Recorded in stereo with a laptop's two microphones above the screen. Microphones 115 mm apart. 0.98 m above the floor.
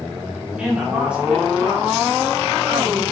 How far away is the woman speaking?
About 2 m.